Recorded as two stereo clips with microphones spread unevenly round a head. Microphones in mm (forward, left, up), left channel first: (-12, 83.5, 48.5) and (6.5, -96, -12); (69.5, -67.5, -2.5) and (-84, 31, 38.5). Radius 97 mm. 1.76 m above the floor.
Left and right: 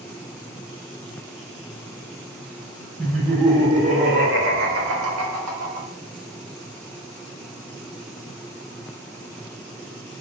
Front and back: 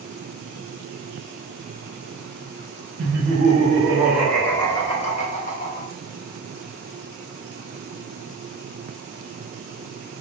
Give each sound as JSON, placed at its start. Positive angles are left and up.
{"t": 3.0, "sound": "laughter", "azimuth_deg": -175, "distance_m": 0.9}